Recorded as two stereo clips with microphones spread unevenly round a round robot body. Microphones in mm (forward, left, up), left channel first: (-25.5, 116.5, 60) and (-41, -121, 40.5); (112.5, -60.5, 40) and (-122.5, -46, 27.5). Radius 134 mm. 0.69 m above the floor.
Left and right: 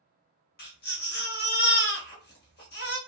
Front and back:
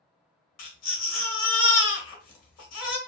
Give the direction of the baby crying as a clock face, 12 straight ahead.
11 o'clock.